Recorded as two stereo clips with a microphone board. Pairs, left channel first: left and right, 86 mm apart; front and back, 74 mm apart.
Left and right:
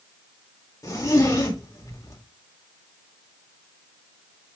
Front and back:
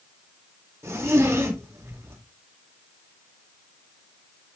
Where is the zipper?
135° left, 2 m.